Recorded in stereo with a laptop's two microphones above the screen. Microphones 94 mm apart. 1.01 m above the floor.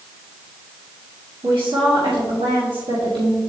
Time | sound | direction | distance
1.4 | a woman speaking | 80° right | 2 m